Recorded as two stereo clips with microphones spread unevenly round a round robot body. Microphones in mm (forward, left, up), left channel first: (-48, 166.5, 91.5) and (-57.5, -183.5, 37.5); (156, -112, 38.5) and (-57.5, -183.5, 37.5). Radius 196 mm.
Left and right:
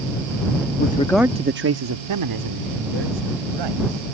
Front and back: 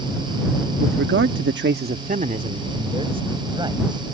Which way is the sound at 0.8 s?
155° left.